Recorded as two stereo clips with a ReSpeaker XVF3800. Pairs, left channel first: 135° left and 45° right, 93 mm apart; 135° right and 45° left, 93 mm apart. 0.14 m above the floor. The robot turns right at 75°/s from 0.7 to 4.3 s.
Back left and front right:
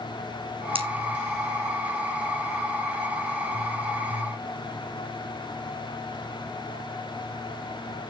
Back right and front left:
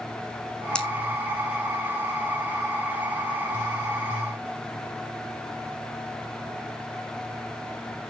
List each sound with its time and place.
0.8 s scissors: 55° right, 1.6 m; by 0.9 s 45° right, 1.6 m